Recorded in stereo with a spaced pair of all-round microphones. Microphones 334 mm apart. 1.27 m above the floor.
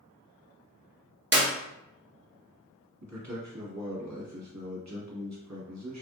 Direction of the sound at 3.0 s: 55° right (ahead or behind).